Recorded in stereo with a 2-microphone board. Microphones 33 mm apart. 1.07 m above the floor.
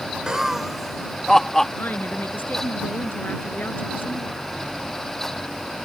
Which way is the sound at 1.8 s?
70° left (ahead or behind).